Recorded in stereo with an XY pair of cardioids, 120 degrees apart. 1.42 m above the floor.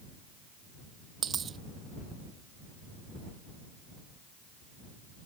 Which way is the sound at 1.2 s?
40° right.